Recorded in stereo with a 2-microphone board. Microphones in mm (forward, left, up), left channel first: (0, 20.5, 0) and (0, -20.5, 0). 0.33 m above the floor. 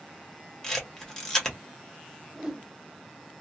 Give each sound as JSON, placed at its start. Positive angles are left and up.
{"t": 0.6, "sound": "a camera shutter", "side_deg": 15, "distance_m": 1.0}
{"t": 2.3, "sound": "a whoosh", "side_deg": -15, "distance_m": 0.9}